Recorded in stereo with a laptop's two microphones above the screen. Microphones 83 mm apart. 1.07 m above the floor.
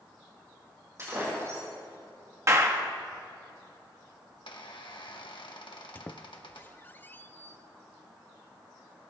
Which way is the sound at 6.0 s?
25° left (ahead or behind).